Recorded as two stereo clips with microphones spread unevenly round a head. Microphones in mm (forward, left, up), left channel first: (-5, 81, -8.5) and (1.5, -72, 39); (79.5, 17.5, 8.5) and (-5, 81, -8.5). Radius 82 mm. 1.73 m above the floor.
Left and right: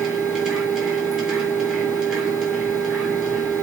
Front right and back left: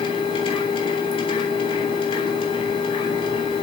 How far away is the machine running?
About 3 m.